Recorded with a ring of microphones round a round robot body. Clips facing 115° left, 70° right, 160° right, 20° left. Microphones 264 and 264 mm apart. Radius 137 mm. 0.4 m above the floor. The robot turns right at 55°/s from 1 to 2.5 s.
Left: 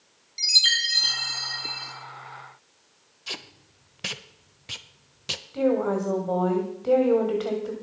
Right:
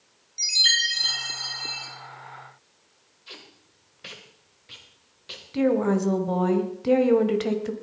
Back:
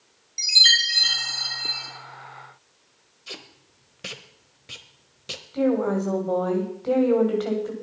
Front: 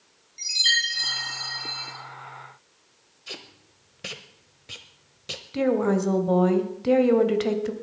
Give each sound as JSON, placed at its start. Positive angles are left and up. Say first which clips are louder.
{"t": 0.4, "sound": "a chime", "louder": "right 1 dB, back 2 dB", "azimuth_deg": -165, "distance_m": 5.0}
{"t": 3.3, "sound": "tape being pulled", "louder": "left 5 dB, even", "azimuth_deg": 115, "distance_m": 1.0}
{"t": 5.5, "sound": "a woman speaking", "louder": "right 2 dB, even", "azimuth_deg": -20, "distance_m": 1.9}